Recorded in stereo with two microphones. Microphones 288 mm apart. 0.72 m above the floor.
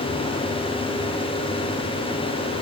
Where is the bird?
No bird in this recording.